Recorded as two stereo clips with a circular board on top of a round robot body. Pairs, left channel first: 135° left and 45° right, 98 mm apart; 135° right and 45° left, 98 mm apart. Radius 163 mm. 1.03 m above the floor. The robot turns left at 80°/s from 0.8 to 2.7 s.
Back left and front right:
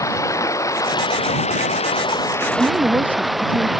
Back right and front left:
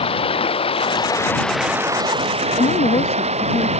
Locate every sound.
0.0 s running water: 165° right; by 3.8 s 45° left
2.6 s a woman speaking: 110° right; by 3.7 s 120° right